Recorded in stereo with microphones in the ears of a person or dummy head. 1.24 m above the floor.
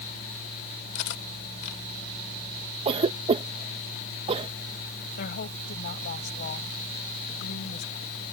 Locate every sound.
0.9 s cutlery clinking: 65° left (ahead or behind)
2.9 s a cough: 30° right (ahead or behind)
5.2 s a woman speaking: 55° left (ahead or behind)